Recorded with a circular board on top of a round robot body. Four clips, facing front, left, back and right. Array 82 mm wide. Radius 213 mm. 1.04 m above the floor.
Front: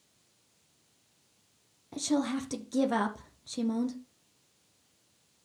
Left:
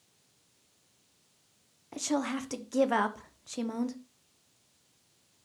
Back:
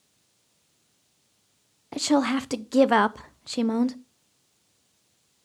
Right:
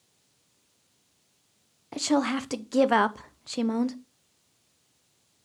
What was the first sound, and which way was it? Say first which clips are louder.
A woman speaking: right 6 dB, back 7 dB; 155° right.